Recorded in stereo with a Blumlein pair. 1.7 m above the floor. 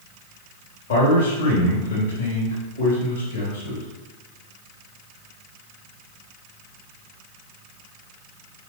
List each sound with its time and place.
0.9 s a man speaking: 70° left, 3.5 m